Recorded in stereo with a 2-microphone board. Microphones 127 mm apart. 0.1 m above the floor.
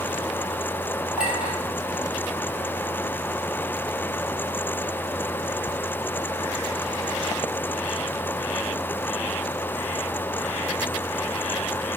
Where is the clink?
10° right (ahead or behind), 2 m.